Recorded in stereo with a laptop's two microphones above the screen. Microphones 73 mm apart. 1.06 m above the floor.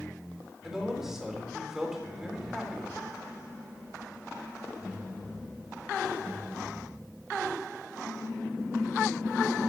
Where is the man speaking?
5° right (ahead or behind), 4 m.